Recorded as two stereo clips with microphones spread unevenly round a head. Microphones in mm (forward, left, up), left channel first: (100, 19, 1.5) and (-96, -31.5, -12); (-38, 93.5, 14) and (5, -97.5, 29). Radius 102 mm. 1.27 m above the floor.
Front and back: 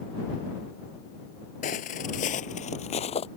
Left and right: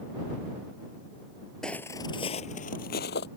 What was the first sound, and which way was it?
Footsteps, 10° left.